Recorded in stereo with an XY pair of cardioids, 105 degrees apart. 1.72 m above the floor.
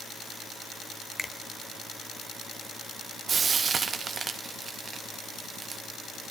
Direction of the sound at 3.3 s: 45° right.